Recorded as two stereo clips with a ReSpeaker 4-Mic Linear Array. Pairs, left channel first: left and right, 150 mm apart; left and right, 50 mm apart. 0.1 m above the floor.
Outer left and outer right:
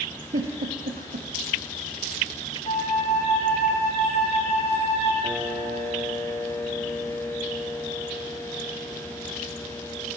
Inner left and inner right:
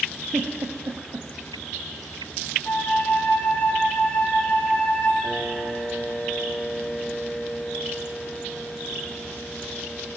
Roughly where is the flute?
Left.